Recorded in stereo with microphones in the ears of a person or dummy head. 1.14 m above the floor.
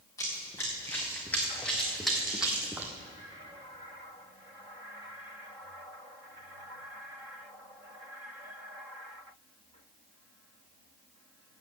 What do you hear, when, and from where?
0.2 s running footsteps: 15° left (ahead or behind), 3 m; by 2.9 s 10° right (ahead or behind), 1.8 m